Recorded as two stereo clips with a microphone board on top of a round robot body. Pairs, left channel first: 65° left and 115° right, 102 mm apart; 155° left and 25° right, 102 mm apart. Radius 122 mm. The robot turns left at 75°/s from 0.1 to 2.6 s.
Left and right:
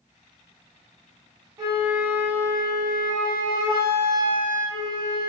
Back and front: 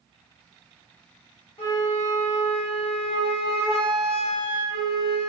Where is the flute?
165° right, 1.0 m; by 5.3 s 115° left, 1.0 m.